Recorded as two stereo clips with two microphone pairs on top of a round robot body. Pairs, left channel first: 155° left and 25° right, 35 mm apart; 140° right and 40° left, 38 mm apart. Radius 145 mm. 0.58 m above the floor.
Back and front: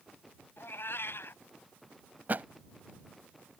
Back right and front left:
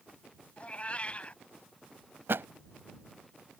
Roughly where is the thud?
Ahead.